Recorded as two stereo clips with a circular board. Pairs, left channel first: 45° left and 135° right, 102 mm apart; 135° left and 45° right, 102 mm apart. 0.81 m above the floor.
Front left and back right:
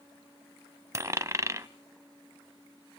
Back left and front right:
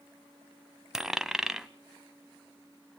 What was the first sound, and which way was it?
A dropped coin, 125° right.